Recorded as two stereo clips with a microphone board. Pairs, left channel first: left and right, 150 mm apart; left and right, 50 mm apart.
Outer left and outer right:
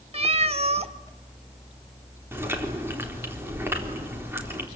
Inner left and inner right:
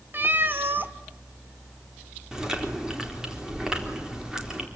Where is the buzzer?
I don't hear a buzzer.